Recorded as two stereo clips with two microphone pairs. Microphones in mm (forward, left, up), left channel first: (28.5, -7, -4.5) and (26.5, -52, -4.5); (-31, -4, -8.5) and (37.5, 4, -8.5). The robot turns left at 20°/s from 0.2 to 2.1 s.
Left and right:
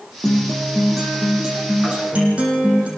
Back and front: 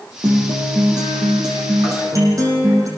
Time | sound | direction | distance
0.2 | a guitar | 10° left | 8 m